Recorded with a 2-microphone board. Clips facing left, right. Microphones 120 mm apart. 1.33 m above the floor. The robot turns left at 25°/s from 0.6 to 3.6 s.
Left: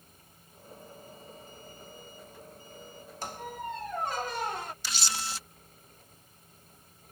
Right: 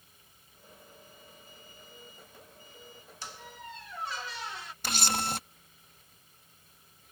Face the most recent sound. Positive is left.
turn(degrees=-55)  # may be behind; listen again after turning